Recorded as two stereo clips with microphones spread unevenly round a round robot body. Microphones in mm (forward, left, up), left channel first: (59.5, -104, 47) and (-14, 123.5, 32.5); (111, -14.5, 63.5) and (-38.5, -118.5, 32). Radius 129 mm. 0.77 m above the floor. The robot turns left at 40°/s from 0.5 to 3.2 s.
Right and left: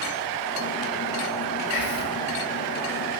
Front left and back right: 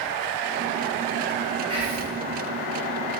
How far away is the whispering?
About 1.6 m.